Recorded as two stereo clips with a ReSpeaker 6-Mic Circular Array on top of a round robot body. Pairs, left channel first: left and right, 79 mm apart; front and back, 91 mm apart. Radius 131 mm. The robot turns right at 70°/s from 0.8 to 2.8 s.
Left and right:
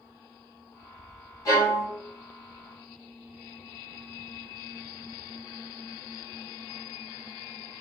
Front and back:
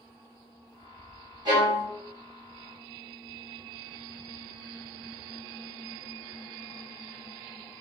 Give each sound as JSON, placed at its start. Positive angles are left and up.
{"t": 1.4, "sound": "a violin", "azimuth_deg": 140, "distance_m": 2.5}